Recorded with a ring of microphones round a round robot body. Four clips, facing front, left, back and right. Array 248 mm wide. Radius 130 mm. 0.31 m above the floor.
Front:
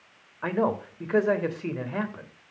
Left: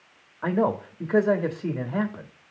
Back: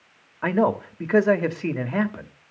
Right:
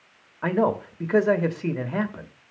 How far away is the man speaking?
About 0.9 m.